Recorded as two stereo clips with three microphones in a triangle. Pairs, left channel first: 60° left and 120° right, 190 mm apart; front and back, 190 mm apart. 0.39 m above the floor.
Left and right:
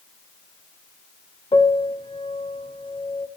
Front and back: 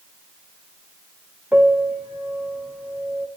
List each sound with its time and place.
1.5 s a piano: 100° left, 0.8 m